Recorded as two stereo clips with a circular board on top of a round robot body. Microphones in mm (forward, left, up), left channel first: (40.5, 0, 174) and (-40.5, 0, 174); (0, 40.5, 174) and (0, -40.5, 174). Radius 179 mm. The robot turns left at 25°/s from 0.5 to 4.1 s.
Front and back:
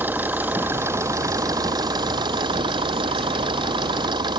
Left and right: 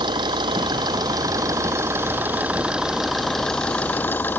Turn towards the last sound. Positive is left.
turn(degrees=155)